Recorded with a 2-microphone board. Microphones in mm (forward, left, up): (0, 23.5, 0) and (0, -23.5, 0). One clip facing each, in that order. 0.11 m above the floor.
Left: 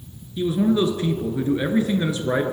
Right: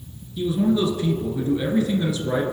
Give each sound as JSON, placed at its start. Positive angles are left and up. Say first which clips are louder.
{"t": 0.4, "sound": "a man speaking", "louder": "left 1 dB", "side_deg": 30, "distance_m": 1.5}